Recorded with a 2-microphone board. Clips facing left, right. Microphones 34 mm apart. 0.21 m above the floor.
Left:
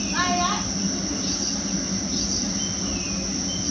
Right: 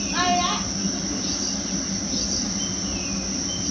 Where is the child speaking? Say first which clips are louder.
Right 2 dB; 25° right (ahead or behind), 3.5 m; by 2.5 s 30° right (ahead or behind), 5 m.